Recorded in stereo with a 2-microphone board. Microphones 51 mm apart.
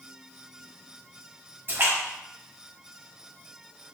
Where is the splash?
50° right (ahead or behind), 1.6 m.